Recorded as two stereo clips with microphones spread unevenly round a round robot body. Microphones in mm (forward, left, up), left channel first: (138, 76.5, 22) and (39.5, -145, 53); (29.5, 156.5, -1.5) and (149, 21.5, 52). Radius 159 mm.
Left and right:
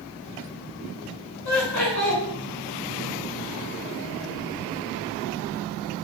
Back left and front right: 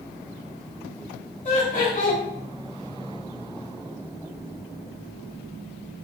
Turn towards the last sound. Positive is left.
turn(degrees=100)